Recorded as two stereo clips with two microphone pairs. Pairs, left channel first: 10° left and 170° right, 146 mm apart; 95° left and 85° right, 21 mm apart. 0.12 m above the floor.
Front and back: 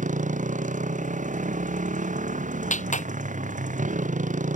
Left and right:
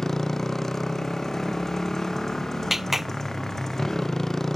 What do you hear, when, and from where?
0.0 s a motorcycle: 165° left
2.7 s a clap: 10° right